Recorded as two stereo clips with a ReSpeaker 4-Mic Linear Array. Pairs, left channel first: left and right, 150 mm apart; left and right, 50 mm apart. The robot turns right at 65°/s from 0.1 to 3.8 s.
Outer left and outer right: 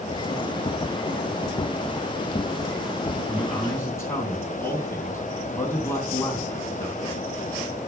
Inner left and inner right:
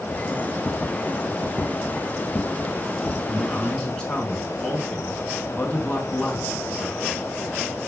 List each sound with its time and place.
3.3 s a man speaking: 15° right, 3 m; by 7.0 s 20° left, 3 m